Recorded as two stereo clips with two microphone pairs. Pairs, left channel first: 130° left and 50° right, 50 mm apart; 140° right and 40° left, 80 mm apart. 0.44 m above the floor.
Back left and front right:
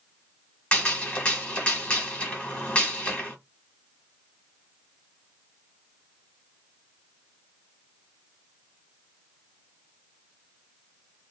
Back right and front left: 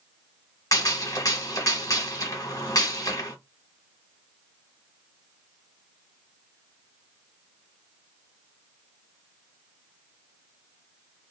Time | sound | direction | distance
0.7 | a gunshot | 175° right | 1.2 m